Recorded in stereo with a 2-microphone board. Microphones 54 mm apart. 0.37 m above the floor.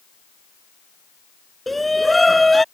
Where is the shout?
5° left (ahead or behind).